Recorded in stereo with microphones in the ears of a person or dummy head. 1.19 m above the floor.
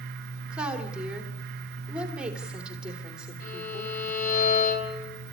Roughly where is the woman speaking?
Centre.